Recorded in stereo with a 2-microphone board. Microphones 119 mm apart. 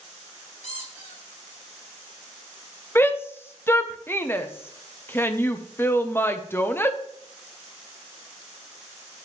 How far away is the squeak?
About 4 m.